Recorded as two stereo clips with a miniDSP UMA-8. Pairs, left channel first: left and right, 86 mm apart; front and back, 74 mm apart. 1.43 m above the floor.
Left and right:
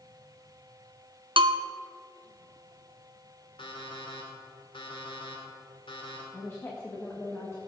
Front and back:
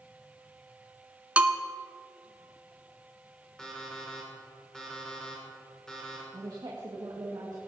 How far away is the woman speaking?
About 1.7 m.